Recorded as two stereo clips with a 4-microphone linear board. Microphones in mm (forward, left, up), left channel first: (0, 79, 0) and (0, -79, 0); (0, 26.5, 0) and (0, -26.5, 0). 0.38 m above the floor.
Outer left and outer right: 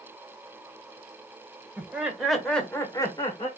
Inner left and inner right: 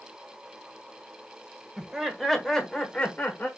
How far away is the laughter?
About 1.6 m.